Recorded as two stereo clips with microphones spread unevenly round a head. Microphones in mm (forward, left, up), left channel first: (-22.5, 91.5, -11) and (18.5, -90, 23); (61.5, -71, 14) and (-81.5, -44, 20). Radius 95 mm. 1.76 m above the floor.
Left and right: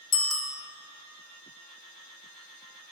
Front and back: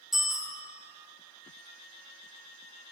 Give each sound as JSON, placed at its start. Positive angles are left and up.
{"t": 0.1, "sound": "a bicycle bell", "azimuth_deg": 80, "distance_m": 2.5}